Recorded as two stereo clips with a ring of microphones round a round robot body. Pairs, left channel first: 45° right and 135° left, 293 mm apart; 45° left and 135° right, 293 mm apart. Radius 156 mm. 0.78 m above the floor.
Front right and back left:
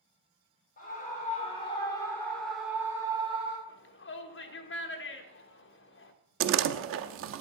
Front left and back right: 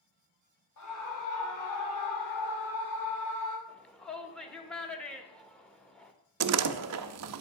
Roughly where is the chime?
No chime in this recording.